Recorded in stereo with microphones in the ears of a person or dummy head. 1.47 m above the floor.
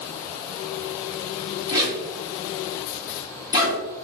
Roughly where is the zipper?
Right.